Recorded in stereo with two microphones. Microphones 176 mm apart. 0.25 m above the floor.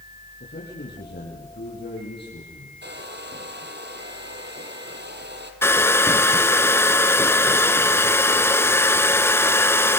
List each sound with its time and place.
0.4 s a man speaking: 75° left (ahead or behind), 7 m
2.8 s a hair dryer: 75° right (ahead or behind), 3.5 m
5.6 s a hair dryer: 15° left (ahead or behind), 1.1 m